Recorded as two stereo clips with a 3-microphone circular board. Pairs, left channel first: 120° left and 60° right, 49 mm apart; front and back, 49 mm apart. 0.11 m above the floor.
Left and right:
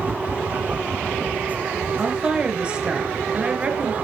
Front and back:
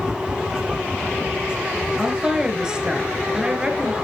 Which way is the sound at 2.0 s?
115° right.